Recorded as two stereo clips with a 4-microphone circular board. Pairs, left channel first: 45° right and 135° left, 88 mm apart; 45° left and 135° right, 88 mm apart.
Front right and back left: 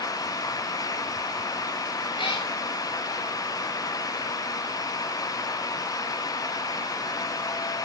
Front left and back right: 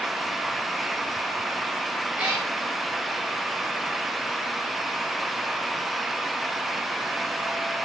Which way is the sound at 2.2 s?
60° right.